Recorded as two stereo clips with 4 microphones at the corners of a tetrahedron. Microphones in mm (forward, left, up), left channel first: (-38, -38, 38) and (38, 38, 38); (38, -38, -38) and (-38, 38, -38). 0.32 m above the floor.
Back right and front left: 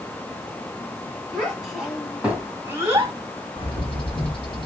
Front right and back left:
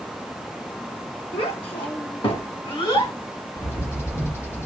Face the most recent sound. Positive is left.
turn(degrees=-105)